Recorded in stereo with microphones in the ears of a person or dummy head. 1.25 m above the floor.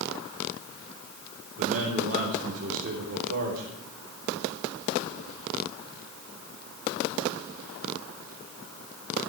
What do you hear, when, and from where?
1.6 s a man speaking: 50° right (ahead or behind), 4 m